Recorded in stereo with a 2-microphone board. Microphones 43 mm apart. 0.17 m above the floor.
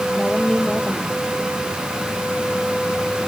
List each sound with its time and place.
0.1 s a woman speaking: 20° left (ahead or behind)